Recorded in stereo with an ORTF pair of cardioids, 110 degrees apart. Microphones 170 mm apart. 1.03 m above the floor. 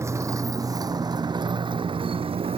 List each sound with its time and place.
0.0 s a motorcycle: 15° right; by 2.6 s 35° right